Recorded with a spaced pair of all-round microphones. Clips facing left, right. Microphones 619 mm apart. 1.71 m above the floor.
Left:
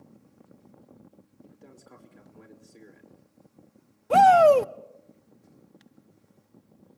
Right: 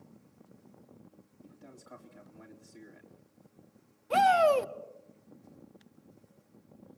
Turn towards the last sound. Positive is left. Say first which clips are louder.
# left 8 dB
turn(degrees=70)  # may be behind; listen again after turning